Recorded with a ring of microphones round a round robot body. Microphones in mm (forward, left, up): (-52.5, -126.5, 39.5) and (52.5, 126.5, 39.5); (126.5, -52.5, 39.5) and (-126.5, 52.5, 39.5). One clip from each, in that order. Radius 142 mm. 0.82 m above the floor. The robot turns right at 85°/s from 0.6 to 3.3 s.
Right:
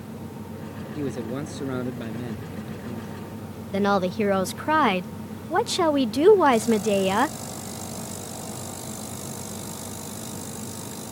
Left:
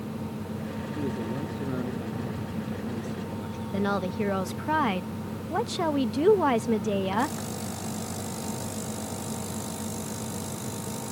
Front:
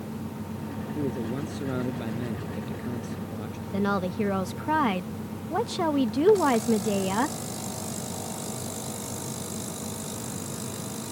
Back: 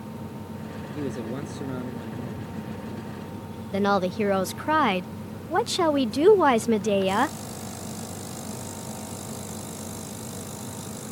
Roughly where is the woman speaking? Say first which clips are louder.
Right 6 dB, back 5 dB; behind.